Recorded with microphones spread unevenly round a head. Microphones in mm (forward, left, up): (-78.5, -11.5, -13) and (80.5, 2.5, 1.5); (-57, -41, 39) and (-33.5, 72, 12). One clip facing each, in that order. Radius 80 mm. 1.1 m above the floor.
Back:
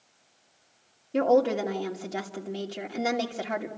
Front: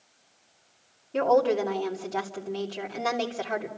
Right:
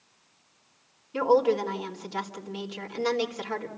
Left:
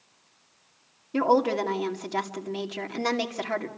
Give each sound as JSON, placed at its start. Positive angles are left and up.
{"t": 1.1, "sound": "a woman speaking", "azimuth_deg": 110, "distance_m": 2.5}